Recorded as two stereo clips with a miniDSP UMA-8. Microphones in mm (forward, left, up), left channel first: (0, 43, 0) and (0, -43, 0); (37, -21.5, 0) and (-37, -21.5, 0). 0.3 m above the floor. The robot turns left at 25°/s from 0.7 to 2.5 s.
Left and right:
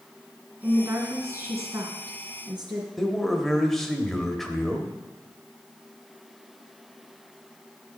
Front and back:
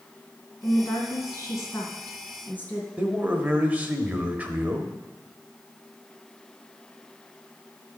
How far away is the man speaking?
About 1.0 m.